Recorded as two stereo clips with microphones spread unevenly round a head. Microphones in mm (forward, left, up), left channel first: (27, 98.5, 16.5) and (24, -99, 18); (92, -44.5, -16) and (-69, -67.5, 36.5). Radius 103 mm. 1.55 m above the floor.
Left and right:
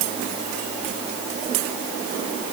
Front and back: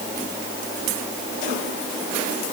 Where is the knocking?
I don't hear knocking.